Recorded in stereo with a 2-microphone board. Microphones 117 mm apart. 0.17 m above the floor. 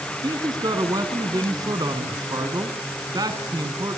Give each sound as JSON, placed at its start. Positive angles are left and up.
{"t": 0.2, "sound": "a man speaking", "side_deg": -40, "distance_m": 1.7}